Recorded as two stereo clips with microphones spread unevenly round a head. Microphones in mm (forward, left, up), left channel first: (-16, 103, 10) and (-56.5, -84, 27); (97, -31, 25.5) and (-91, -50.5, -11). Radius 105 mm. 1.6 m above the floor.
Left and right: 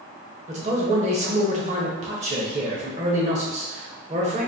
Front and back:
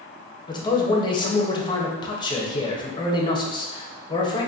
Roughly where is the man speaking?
Ahead right.